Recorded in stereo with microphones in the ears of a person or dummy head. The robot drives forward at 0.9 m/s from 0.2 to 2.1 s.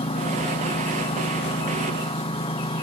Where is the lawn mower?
25° left (ahead or behind).